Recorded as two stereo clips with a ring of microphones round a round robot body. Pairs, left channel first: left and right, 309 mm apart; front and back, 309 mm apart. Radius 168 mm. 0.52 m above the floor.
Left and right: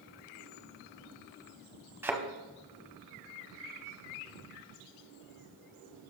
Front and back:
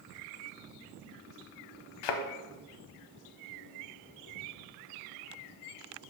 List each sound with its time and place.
2.0 s a thud: 5° right, 0.9 m